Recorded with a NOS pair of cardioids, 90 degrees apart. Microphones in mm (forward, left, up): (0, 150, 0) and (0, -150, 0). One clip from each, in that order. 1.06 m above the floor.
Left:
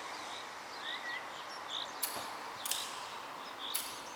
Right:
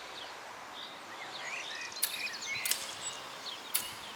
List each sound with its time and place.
2.0 s scissors: 30° right, 1.4 m